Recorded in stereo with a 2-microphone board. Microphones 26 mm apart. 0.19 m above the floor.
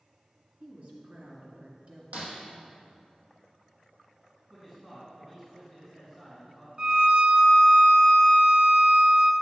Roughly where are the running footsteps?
No running footsteps in this recording.